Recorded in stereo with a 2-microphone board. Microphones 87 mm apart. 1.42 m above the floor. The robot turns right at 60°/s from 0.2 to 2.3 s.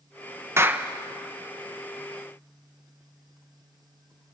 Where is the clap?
30° right (ahead or behind), 0.9 m; by 0.9 s 10° right (ahead or behind), 0.9 m.